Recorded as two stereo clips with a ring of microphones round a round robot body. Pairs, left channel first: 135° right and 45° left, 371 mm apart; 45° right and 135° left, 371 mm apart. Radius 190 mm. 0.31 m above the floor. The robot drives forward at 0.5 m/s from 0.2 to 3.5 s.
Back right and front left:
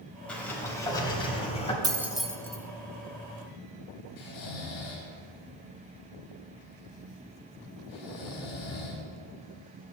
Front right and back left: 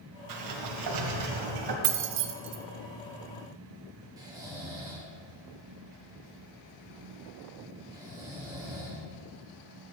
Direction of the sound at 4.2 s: 145° right.